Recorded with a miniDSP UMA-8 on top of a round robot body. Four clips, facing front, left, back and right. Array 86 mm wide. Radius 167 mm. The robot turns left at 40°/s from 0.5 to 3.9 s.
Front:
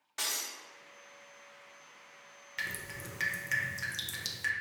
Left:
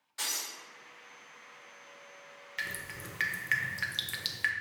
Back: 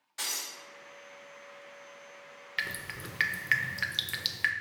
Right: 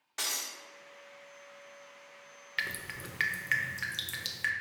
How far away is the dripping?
About 0.5 m.